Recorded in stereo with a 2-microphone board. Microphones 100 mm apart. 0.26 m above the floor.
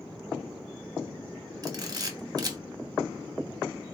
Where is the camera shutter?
40° right (ahead or behind), 0.8 m.